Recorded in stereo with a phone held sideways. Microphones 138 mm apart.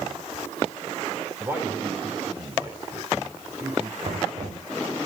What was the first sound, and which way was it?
A man speaking, 20° right (ahead or behind).